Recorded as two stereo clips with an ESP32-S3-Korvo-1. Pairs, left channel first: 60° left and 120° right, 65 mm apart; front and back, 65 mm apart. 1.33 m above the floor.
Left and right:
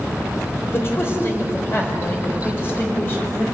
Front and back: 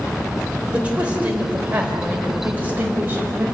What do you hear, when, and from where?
0.7 s a man speaking: 110° left, 5 m; by 3.5 s 120° left, 6 m